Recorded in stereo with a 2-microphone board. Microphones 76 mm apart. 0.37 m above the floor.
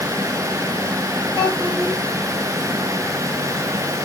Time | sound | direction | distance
1.4 | a child speaking | 30° left (ahead or behind) | 7 m